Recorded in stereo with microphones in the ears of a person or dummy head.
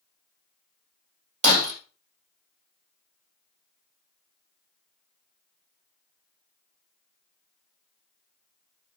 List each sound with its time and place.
1.4 s breaking glass: 45° right (ahead or behind), 2 m